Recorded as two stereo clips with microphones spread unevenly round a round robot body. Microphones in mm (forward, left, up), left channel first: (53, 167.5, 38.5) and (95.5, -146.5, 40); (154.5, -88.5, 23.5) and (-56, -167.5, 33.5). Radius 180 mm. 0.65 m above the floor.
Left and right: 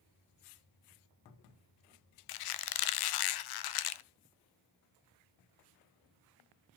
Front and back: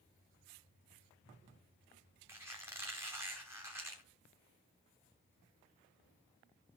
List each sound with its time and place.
2.3 s a squeak: 115° left, 0.6 m